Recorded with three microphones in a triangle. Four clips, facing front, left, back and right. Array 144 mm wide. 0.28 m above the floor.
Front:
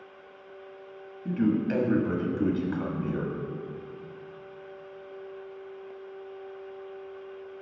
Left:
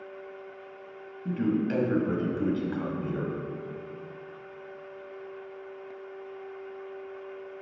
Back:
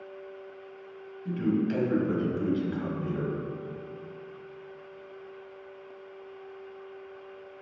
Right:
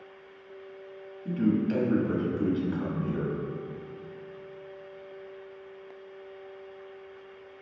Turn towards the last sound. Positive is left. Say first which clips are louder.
# right 1 dB, front 2 dB
turn(degrees=30)